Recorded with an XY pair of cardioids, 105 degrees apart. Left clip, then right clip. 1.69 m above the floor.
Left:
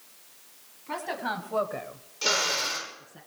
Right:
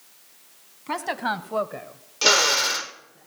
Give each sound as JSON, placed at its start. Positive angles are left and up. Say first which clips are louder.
{"t": 0.9, "sound": "a woman speaking", "louder": "right 5 dB", "azimuth_deg": -60, "distance_m": 1.5}
{"t": 2.2, "sound": "a drill", "louder": "right 7 dB", "azimuth_deg": -65, "distance_m": 1.0}